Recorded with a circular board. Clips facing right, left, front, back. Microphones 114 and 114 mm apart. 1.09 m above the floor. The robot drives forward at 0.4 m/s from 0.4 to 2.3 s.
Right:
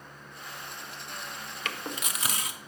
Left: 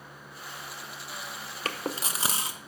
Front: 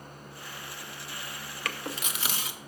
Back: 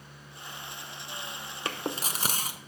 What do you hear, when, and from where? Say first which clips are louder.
1.6 s chewing: left 4 dB, back 3 dB; 125° left, 0.6 m; by 2.6 s 145° left, 0.8 m